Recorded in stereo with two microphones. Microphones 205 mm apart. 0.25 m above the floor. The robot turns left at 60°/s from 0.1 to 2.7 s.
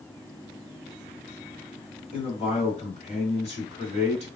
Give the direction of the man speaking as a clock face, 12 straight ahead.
8 o'clock.